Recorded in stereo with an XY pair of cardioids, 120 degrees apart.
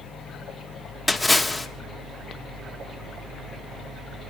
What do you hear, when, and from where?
1.1 s a splash: straight ahead, 1.3 m